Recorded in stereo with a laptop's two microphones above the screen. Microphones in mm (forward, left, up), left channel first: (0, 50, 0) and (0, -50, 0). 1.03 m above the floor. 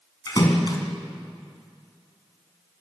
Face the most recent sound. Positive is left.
turn(degrees=45)  # may be behind; listen again after turning